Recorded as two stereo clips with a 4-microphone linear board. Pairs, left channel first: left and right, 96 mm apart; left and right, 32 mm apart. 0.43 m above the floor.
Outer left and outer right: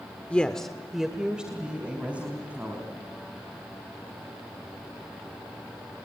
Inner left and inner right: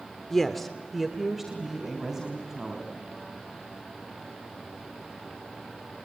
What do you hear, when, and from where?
0.3 s a woman speaking: 15° left (ahead or behind), 1.0 m; by 3.0 s 15° right (ahead or behind), 4 m